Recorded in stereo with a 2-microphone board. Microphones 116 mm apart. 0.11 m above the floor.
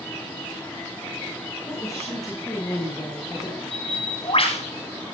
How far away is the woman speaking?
About 8.5 m.